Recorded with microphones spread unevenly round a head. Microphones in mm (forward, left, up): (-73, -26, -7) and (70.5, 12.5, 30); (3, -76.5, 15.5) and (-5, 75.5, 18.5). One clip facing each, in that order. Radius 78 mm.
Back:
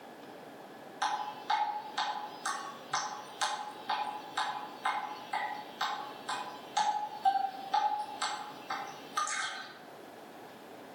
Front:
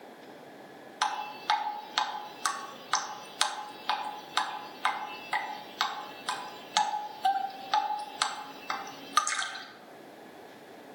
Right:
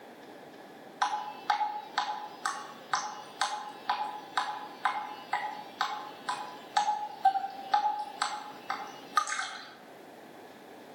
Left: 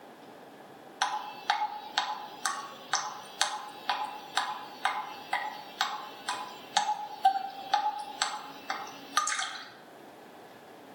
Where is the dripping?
35° left, 2.5 m.